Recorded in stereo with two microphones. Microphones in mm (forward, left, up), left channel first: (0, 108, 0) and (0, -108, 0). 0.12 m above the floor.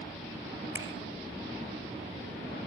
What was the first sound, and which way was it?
A finger snap, 10° right (ahead or behind).